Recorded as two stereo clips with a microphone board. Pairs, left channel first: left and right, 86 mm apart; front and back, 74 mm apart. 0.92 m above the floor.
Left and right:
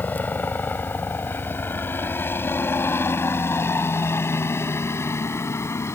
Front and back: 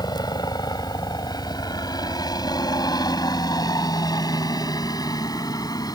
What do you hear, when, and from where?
0.0 s a helicopter: 20° left; by 6.0 s 30° left